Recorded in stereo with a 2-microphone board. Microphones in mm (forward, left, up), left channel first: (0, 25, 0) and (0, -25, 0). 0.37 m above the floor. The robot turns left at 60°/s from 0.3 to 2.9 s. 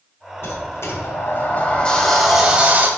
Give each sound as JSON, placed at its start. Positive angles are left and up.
{"t": 0.4, "sound": "a sliding door", "azimuth_deg": 105, "distance_m": 1.7}